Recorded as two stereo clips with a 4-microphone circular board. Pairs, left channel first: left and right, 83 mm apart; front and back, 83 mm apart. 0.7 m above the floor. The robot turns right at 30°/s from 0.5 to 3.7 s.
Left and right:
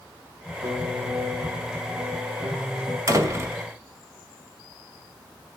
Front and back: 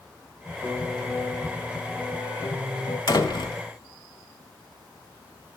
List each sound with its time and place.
0.6 s a piano: 105° right, 5.5 m; by 3.0 s 35° right, 5.5 m
3.1 s a door slam: 40° right, 2.0 m; by 3.6 s 25° right, 2.0 m